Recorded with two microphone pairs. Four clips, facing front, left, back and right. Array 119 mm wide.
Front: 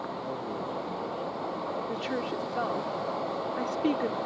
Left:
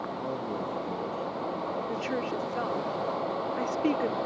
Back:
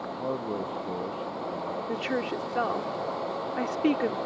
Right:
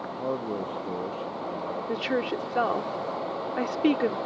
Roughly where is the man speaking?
Behind right.